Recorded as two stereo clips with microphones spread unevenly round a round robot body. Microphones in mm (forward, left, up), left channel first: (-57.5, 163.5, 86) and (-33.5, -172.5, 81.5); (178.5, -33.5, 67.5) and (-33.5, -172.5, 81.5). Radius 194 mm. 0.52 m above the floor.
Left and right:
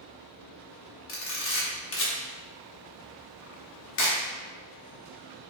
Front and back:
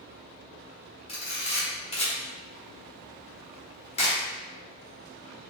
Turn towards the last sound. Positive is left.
turn(degrees=75)